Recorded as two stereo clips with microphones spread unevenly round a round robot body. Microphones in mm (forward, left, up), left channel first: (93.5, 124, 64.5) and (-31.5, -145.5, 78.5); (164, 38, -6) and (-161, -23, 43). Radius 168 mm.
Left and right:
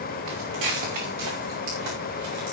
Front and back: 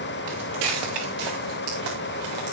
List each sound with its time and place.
0.3 s footsteps: 145° right, 5.5 m; by 2.5 s 160° right, 5 m